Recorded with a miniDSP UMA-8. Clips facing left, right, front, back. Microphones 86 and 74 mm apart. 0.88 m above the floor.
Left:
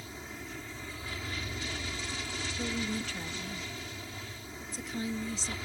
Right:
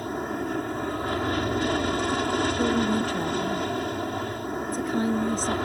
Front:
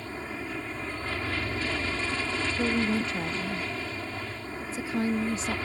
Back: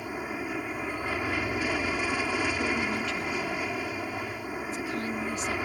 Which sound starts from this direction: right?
An aircraft, at 0.0 s.